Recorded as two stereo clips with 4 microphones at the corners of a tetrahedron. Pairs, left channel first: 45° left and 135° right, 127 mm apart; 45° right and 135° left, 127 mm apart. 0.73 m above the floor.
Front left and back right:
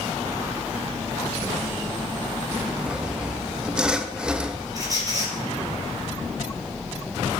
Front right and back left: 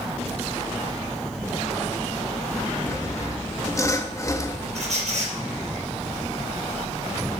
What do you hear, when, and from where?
2.9 s sawing: 60° right, 0.6 m
4.8 s a squeak: 165° left, 3.5 m